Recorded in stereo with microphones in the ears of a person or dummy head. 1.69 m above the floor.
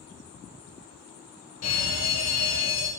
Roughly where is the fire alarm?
Left.